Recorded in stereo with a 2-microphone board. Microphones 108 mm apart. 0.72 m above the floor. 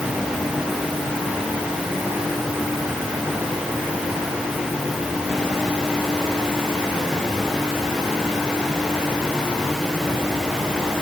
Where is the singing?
No singing in this recording.